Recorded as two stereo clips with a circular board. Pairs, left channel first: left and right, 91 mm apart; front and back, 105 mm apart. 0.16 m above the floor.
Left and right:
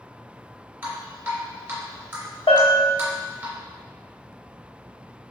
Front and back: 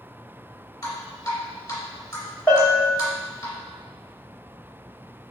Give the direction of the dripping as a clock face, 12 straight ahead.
1 o'clock.